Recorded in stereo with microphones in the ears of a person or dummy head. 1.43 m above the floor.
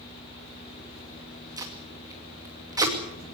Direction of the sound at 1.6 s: 15° right (ahead or behind).